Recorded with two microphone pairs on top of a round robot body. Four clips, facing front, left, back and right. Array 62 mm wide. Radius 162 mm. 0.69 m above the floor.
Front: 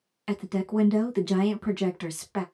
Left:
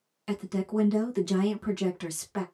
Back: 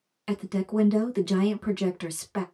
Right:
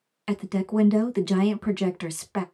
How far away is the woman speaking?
About 1.1 m.